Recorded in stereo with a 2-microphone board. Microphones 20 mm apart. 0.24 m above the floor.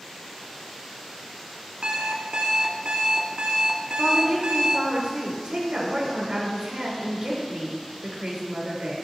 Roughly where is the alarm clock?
Right.